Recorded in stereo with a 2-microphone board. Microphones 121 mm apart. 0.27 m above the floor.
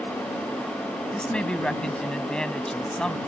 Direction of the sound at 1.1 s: 5° left (ahead or behind).